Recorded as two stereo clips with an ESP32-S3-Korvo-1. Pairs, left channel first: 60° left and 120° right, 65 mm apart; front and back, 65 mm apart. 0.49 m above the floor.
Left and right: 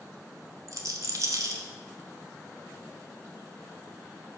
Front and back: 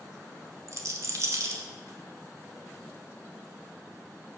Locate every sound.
0.7 s a rattle: 145° right, 1.0 m